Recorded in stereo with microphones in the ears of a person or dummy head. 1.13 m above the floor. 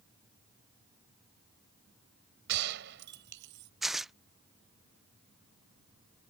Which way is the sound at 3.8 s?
5° right (ahead or behind).